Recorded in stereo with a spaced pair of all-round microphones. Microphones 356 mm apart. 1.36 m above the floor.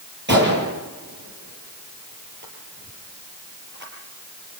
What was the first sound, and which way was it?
A gunshot, 30° right (ahead or behind).